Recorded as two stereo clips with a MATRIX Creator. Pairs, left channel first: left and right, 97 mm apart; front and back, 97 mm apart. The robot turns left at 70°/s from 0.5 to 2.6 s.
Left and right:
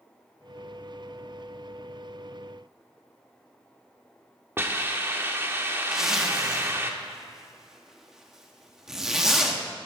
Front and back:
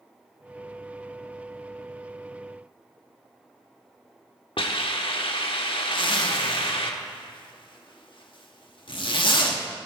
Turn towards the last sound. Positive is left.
turn(degrees=-5)